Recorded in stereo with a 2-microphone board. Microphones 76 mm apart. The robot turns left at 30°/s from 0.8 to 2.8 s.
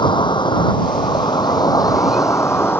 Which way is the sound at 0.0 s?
85° left.